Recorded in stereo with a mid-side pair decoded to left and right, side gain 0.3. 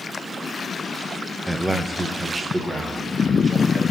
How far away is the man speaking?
About 0.6 m.